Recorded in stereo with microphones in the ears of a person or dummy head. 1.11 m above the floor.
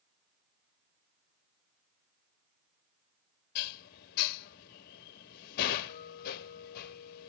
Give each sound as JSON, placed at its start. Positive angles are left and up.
{"t": 3.5, "sound": "dishes clattering", "side_deg": 50, "distance_m": 1.1}